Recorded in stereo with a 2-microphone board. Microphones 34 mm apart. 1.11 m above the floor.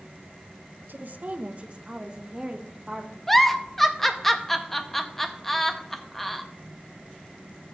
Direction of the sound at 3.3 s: 5° left (ahead or behind).